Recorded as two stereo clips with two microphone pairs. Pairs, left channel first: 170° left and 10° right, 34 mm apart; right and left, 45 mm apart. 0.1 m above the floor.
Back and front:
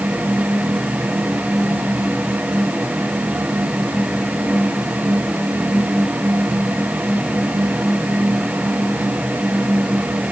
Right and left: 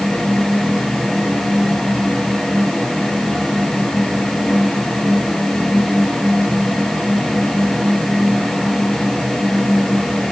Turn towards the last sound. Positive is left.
No sound to turn to.